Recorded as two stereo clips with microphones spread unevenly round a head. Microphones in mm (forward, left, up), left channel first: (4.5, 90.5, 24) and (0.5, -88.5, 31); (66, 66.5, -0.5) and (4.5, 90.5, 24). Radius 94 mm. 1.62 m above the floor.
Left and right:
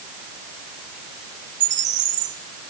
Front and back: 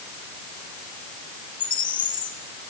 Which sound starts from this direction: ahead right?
A bird, at 1.6 s.